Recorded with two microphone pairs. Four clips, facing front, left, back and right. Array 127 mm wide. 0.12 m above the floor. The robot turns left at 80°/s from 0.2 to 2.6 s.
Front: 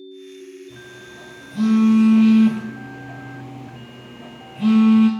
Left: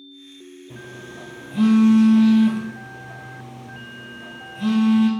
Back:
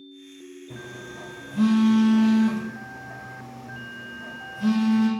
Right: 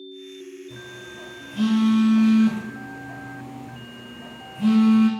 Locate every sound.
0.7 s a phone buzzing: 140° left, 1.9 m; by 5.1 s 10° right, 1.9 m